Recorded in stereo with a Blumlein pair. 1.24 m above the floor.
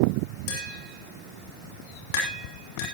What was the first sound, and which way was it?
Tapping, 50° left.